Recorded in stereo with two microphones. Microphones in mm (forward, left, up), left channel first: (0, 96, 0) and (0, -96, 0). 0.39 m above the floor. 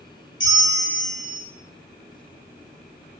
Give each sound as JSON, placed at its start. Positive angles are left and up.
{"t": 0.4, "sound": "a bell", "side_deg": 80, "distance_m": 0.7}